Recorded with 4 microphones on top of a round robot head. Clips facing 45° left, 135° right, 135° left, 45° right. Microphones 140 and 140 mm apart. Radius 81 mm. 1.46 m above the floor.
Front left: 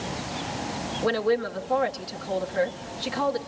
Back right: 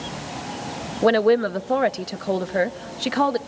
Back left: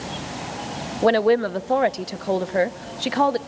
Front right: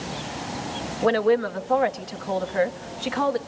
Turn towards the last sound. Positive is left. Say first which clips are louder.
# back right 7 dB, back left 3 dB
turn(degrees=-170)